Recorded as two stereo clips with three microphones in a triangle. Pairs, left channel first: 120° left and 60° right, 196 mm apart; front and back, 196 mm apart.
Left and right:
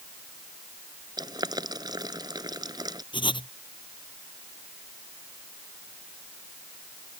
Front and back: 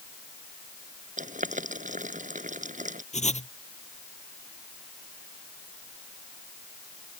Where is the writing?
55° left.